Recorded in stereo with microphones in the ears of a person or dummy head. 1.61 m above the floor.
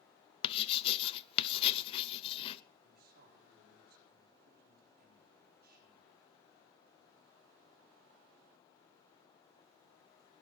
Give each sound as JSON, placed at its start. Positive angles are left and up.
{"t": 0.4, "sound": "writing", "side_deg": 30, "distance_m": 0.6}
{"t": 2.8, "sound": "a man speaking", "side_deg": -50, "distance_m": 4.5}